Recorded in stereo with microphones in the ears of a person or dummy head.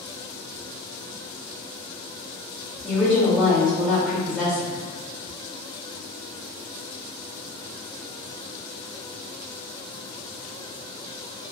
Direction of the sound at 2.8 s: 10° left (ahead or behind).